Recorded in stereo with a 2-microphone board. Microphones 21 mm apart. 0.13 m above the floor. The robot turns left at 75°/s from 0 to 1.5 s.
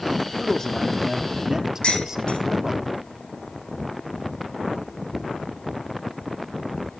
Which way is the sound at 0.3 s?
60° left.